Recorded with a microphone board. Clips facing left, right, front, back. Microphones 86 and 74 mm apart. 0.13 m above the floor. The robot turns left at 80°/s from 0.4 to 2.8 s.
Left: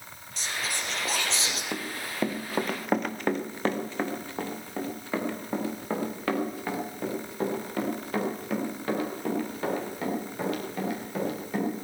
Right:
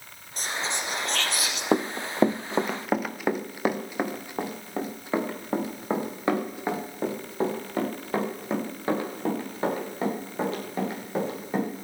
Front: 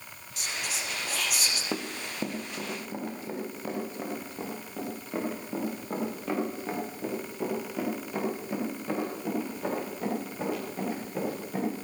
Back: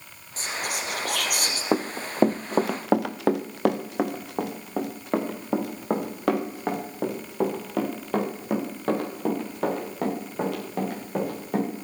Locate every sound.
0.4 s whispering: 130° right, 3.5 m; by 1.6 s 135° left, 3.5 m
1.7 s running footsteps: 130° right, 0.8 m; by 11.7 s 155° right, 9 m